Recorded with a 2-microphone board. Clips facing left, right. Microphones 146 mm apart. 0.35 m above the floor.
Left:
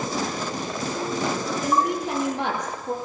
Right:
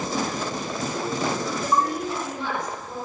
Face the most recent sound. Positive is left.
turn(degrees=75)  # may be behind; listen again after turning